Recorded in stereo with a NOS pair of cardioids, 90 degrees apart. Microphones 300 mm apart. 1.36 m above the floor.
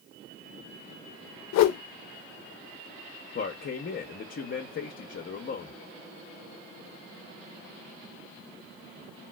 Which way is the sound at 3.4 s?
40° left.